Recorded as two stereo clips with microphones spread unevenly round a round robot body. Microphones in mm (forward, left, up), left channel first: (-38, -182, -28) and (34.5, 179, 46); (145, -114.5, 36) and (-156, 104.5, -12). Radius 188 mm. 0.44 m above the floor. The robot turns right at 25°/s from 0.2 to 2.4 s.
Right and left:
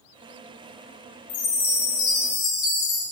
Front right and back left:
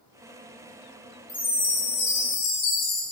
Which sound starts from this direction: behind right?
A chime, at 1.3 s.